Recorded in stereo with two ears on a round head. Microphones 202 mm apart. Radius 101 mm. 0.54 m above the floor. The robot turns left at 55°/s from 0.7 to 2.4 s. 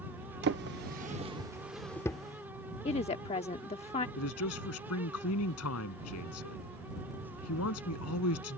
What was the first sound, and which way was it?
A drawer, 50° right (ahead or behind).